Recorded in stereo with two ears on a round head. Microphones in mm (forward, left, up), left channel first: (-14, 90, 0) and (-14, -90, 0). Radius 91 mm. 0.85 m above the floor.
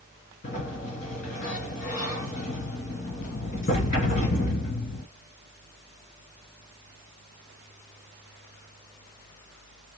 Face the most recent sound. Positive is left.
turn(degrees=40)  # may be behind; listen again after turning